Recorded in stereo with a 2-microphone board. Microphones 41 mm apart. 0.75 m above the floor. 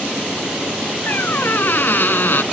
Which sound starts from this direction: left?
A squeak, at 1.1 s.